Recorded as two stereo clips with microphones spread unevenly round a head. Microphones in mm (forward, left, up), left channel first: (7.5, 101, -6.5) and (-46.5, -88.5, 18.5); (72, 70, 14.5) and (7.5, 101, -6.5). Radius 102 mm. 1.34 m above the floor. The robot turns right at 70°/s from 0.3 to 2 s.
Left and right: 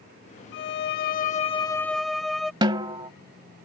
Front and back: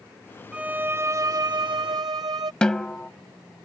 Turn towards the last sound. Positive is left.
turn(degrees=-70)